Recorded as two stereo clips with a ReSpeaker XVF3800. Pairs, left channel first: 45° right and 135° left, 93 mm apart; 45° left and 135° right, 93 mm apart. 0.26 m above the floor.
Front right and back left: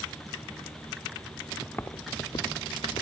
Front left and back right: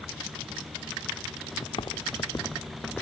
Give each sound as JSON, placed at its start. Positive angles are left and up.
{"t": 1.6, "sound": "footsteps", "azimuth_deg": 35, "distance_m": 1.1}